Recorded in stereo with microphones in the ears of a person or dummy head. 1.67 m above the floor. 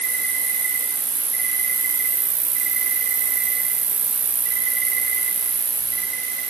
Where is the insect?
70° right (ahead or behind), 2.5 m.